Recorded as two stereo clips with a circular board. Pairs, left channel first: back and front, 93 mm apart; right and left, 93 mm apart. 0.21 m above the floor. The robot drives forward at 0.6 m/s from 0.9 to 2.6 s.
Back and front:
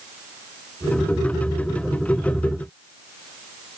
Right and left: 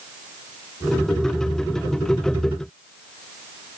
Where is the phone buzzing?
I don't hear a phone buzzing.